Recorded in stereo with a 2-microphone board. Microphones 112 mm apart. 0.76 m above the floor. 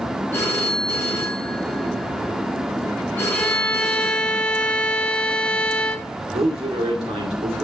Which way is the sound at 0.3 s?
20° left (ahead or behind).